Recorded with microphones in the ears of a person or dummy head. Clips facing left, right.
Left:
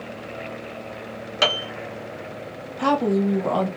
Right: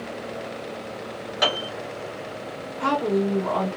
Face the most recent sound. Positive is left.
turn(degrees=85)